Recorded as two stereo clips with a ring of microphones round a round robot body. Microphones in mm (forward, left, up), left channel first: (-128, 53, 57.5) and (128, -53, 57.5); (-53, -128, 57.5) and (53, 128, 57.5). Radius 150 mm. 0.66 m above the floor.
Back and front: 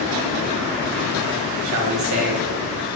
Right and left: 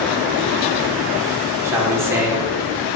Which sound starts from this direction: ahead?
A man speaking, at 1.6 s.